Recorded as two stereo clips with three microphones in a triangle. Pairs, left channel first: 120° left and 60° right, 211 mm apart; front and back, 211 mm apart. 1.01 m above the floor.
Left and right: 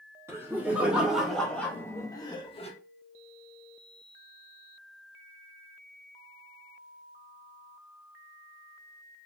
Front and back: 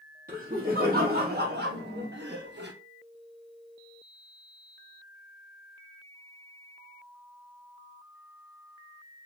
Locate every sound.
0.3 s laughter: 135° right, 2.0 m; by 2.7 s 175° left, 1.3 m